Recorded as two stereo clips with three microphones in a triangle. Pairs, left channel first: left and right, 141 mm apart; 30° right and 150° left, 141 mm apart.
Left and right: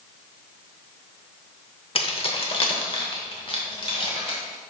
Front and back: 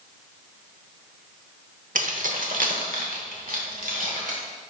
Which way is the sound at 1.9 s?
135° left.